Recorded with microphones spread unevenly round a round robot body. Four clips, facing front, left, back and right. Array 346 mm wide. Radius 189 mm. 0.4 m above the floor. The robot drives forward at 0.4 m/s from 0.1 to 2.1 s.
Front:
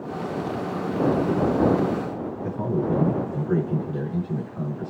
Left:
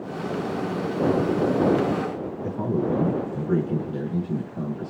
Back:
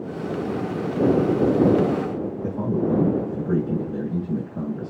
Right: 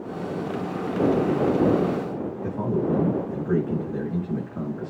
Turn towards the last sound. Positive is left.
turn(degrees=-150)